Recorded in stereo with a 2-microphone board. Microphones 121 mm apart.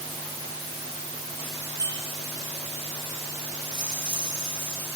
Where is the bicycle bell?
30° right (ahead or behind), 6.5 m.